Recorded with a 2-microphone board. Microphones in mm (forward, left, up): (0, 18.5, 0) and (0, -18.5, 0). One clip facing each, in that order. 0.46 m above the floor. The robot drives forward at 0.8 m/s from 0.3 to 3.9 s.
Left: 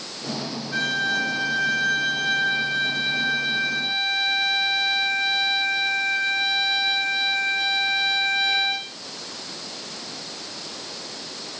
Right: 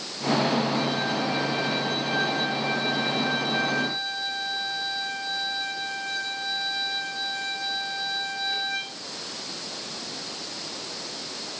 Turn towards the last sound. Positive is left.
turn(degrees=40)  # may be behind; listen again after turning